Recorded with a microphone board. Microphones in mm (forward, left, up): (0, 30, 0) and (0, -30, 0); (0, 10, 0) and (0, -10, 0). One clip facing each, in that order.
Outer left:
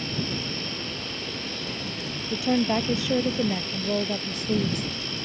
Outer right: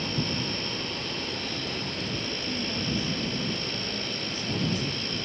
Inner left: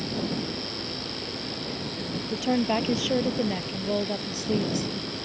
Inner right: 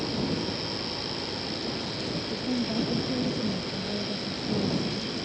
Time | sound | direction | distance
2.3 | a woman speaking | 80° left | ?